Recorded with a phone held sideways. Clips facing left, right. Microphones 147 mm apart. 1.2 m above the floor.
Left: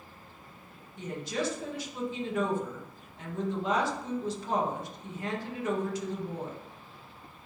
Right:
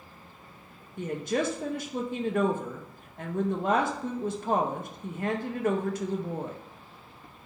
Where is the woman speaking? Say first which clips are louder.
Right 5 dB; 55° right (ahead or behind), 0.5 m.